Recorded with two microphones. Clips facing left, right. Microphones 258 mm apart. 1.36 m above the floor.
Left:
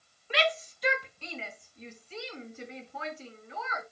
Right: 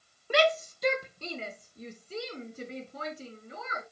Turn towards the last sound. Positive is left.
turn(degrees=-40)  # may be behind; listen again after turning